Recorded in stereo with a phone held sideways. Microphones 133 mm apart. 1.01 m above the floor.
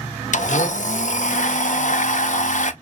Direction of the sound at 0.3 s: 70° left (ahead or behind).